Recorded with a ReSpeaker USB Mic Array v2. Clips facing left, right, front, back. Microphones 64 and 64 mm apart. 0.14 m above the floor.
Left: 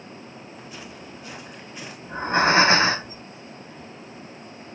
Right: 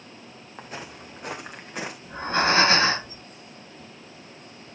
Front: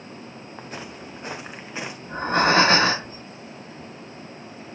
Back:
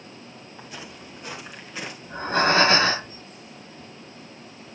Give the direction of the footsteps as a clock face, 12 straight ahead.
2 o'clock.